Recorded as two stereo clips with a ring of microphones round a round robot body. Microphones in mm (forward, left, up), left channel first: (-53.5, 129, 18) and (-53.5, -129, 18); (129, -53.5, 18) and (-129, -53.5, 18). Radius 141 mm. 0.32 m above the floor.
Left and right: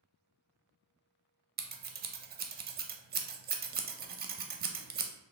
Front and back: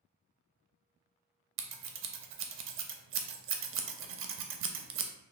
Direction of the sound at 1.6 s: 145° right.